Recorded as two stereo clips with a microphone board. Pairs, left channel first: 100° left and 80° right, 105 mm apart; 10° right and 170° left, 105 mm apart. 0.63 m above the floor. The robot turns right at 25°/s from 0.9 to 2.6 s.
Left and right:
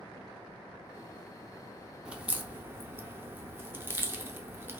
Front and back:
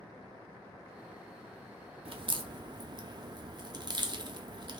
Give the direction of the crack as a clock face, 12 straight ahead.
5 o'clock.